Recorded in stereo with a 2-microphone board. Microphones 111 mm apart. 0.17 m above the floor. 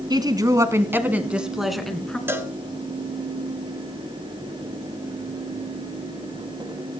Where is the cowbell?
20° right (ahead or behind), 1.6 m.